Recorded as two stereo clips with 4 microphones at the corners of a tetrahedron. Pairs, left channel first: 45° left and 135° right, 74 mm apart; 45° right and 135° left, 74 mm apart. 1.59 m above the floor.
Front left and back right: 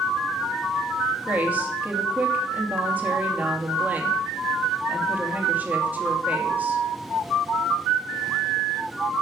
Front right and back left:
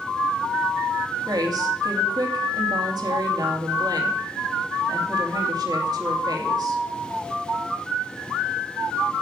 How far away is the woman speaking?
About 2.5 m.